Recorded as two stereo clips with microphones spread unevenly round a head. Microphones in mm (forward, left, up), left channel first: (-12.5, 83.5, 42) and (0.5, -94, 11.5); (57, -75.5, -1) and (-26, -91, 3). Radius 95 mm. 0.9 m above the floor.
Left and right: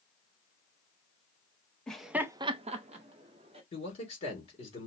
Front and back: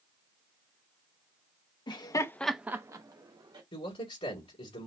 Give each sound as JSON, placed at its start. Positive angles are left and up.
{"t": 1.9, "sound": "laughter", "azimuth_deg": 0, "distance_m": 0.9}
{"t": 3.7, "sound": "a man speaking", "azimuth_deg": 35, "distance_m": 3.0}